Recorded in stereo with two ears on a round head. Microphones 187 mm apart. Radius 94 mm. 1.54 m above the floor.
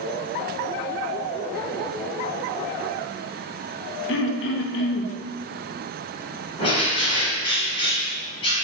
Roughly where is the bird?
Left.